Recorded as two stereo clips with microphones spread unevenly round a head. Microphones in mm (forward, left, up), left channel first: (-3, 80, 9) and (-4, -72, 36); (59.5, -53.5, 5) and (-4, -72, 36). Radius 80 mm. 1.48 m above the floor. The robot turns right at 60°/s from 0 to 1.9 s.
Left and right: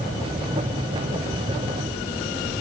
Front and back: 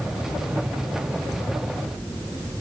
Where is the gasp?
No gasp in this recording.